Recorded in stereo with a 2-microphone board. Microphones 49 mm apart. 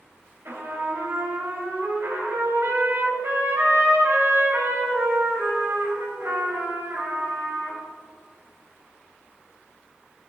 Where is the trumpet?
55° right (ahead or behind), 3.5 m.